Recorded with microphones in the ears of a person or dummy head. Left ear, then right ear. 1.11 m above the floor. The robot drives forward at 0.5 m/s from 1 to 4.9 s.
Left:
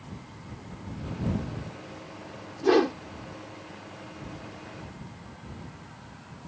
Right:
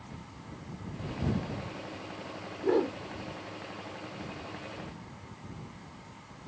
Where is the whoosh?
65° left (ahead or behind); by 3.0 s 70° left (ahead or behind).